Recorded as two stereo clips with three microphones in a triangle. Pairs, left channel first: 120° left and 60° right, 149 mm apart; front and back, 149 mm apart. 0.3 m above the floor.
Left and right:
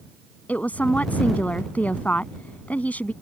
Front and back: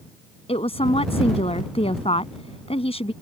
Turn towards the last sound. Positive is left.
turn(degrees=40)